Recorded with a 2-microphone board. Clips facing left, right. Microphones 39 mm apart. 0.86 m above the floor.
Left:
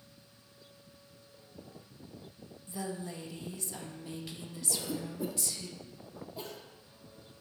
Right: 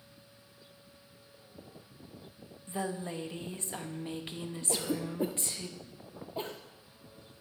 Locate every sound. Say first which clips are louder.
2.7 s a woman speaking: right 3 dB; 35° right (ahead or behind), 0.8 m
4.7 s a cough: right 4 dB; 35° right (ahead or behind), 0.5 m